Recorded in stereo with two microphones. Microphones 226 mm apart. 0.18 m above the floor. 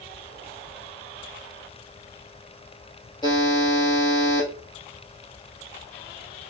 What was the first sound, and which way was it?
A buzzer, 20° left (ahead or behind).